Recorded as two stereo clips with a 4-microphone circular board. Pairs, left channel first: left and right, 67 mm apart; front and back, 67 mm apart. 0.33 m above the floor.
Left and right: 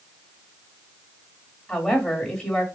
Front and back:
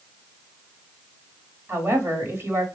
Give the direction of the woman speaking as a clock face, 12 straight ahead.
6 o'clock.